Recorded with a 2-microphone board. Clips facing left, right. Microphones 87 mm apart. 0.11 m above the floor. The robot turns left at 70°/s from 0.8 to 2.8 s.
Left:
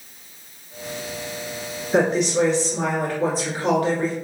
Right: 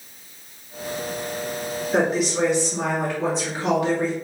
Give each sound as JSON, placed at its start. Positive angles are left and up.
{"t": 1.9, "sound": "a woman speaking", "side_deg": 0, "distance_m": 1.4}